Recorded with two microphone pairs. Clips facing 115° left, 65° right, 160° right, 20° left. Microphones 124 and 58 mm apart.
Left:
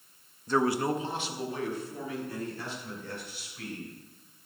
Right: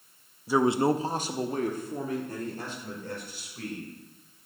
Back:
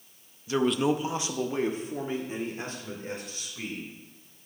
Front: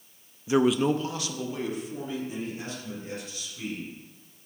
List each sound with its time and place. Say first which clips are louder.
0.5 s a man speaking: right 3 dB, front 2 dB; 10° left, 0.5 m; by 3.9 s 110° right, 3 m